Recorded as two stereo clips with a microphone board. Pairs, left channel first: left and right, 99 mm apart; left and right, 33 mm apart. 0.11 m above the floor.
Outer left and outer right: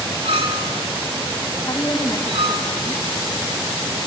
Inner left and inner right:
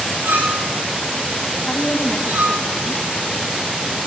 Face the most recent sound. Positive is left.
turn(degrees=30)  # may be behind; listen again after turning